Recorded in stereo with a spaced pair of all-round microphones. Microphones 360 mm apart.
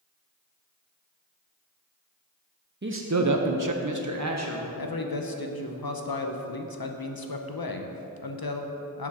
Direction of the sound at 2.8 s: 30° right (ahead or behind).